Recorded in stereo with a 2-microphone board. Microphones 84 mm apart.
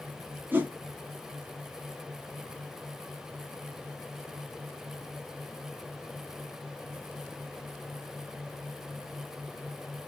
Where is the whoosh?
25° right (ahead or behind), 0.7 m.